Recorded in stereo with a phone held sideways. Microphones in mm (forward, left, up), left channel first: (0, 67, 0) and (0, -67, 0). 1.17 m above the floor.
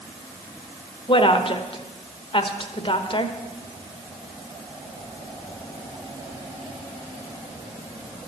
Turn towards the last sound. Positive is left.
turn(degrees=45)  # may be behind; listen again after turning